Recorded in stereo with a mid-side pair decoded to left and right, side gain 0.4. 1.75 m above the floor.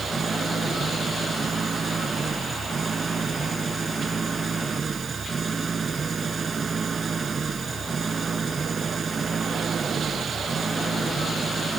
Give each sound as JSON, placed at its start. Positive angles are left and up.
{"t": 0.0, "sound": "an engine running", "azimuth_deg": -35}